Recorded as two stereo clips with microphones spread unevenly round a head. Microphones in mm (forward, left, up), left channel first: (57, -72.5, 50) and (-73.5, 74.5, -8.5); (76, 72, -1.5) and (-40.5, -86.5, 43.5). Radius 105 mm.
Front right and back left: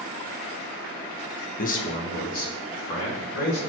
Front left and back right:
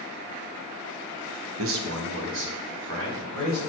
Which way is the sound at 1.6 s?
100° right.